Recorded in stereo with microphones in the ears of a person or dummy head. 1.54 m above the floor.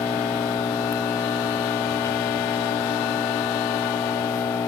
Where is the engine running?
20° left (ahead or behind).